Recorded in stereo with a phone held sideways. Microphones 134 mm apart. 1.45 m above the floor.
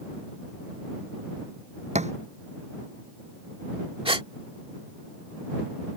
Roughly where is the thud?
Right.